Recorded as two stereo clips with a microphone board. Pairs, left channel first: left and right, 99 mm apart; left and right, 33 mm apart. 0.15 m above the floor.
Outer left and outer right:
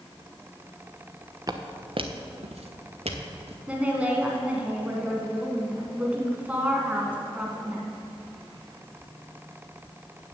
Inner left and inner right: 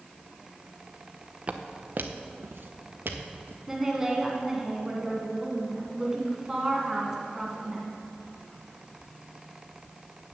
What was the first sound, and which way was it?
Footsteps, 35° right (ahead or behind).